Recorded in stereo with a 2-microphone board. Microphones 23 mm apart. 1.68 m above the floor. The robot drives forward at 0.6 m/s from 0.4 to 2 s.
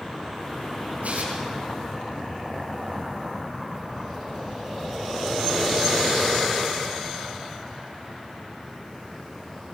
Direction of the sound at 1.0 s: 75° right (ahead or behind).